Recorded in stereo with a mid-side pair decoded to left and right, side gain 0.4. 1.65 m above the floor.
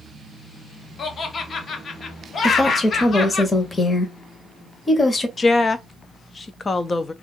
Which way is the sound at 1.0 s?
50° left.